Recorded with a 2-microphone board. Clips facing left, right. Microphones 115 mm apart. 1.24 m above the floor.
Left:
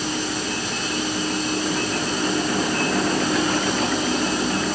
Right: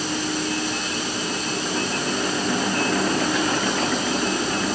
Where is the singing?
No singing in this recording.